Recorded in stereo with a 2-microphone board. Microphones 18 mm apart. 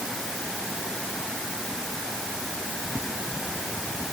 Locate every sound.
Only background noise.